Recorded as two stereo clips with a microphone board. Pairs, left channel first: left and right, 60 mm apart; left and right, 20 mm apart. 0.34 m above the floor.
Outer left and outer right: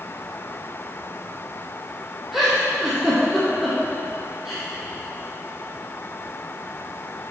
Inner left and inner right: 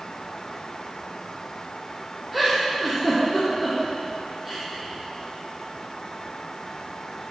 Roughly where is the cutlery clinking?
I don't hear cutlery clinking.